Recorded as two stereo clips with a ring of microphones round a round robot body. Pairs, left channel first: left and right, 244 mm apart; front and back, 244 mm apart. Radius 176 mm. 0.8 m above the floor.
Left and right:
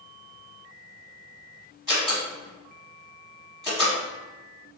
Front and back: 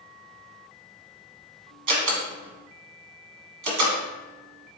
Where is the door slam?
170° right, 1.1 m.